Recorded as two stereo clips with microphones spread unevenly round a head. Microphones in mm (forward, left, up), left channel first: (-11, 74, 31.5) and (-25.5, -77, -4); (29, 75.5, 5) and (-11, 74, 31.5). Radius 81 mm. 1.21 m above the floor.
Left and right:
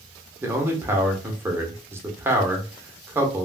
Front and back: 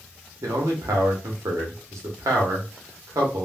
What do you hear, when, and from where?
0.4 s a man speaking: 165° right, 1.0 m